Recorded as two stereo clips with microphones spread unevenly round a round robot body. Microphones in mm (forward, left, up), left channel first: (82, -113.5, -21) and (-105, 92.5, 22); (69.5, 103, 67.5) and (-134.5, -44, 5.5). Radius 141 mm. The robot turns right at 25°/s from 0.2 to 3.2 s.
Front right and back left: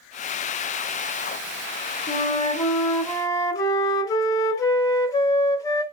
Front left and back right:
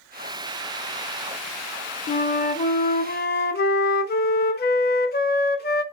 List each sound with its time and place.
2.1 s a flute: 30° right, 0.5 m; by 5.8 s 5° right, 0.5 m